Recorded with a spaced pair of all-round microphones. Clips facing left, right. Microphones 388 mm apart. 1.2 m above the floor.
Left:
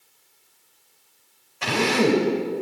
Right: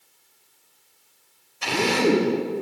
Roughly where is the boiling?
No boiling in this recording.